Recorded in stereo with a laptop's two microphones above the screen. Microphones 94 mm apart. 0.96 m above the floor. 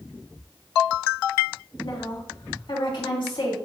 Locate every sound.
1.8 s a woman speaking: 60° left (ahead or behind), 3.5 m